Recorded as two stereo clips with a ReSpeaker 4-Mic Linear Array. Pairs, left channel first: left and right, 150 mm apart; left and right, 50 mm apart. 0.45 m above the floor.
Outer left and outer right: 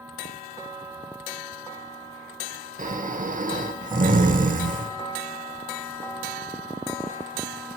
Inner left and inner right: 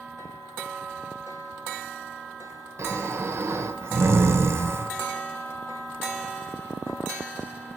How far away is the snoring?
About 1.1 m.